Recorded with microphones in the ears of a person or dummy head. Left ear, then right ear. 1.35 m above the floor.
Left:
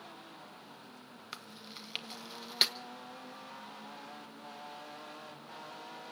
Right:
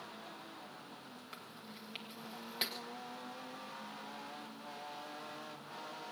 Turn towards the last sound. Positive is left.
turn(degrees=35)  # may be behind; listen again after turning